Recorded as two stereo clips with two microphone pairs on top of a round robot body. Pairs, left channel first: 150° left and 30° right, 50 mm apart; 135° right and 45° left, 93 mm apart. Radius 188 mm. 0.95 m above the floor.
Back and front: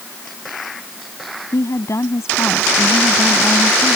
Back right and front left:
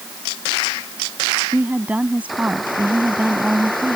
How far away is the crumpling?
I don't hear crumpling.